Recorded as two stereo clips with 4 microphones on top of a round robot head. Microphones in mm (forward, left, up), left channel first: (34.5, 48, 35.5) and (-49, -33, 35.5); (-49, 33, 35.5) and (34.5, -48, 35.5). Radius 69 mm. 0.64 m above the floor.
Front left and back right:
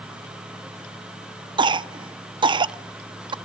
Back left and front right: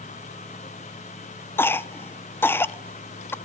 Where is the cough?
160° right, 0.7 m.